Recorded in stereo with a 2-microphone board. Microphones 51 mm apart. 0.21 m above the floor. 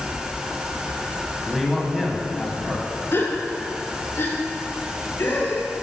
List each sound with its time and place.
1.5 s a man speaking: centre (ahead or behind), 1.0 m
3.1 s a gasp: 45° left (ahead or behind), 1.5 m